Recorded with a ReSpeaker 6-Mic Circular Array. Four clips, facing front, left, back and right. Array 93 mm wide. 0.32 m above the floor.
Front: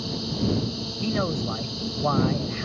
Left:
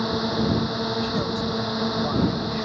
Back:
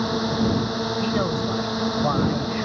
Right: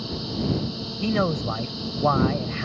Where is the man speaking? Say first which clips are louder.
Right 2 dB, even; 100° right.